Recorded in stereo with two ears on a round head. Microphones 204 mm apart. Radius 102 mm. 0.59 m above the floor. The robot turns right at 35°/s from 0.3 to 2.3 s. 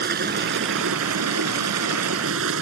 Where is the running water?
130° right; by 2.6 s 60° right.